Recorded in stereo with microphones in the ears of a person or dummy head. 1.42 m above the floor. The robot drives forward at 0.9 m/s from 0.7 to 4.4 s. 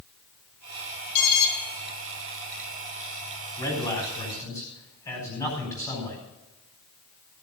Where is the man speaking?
20° left (ahead or behind), 3.5 m; by 6.2 s 15° left (ahead or behind), 4 m.